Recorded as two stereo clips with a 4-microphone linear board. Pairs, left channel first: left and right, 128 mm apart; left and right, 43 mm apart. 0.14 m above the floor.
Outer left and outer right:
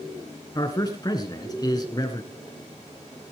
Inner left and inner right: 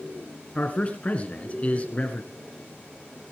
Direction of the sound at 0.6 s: 30° left (ahead or behind).